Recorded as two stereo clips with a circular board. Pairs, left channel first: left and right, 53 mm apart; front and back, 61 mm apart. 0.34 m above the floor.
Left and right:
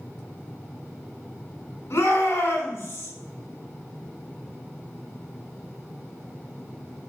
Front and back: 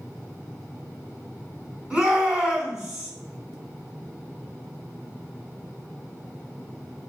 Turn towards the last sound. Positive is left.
turn(degrees=100)